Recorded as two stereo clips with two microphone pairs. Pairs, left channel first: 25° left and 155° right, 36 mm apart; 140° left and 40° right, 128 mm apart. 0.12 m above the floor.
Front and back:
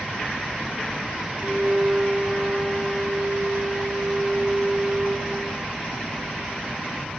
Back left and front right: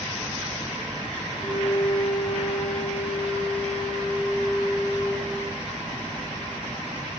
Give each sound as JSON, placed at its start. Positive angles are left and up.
{"t": 1.3, "sound": "a violin", "azimuth_deg": 170, "distance_m": 4.5}